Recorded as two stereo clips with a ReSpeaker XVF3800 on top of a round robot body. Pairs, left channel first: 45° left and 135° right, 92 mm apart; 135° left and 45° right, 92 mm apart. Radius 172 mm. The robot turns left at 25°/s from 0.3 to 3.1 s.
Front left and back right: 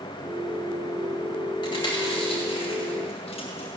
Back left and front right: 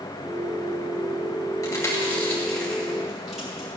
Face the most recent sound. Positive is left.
turn(degrees=40)